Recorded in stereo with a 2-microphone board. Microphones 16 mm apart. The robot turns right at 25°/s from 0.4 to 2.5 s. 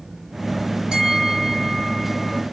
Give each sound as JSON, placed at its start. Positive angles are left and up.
{"t": 0.9, "sound": "a bell", "azimuth_deg": -75, "distance_m": 3.0}